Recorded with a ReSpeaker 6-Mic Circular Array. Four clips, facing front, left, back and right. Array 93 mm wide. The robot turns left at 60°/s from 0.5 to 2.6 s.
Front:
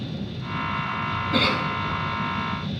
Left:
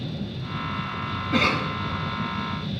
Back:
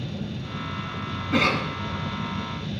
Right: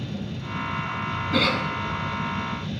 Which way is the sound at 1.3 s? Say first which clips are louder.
Left 1 dB, back 1 dB; 145° left.